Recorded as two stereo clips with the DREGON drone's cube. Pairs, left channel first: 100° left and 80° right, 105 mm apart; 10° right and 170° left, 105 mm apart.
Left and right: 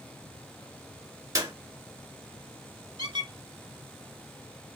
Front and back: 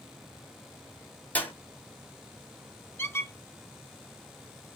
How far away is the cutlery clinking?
No cutlery clinking in this recording.